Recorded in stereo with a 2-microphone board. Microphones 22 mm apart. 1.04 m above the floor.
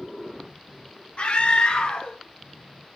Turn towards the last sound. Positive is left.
turn(degrees=65)  # may be behind; listen again after turning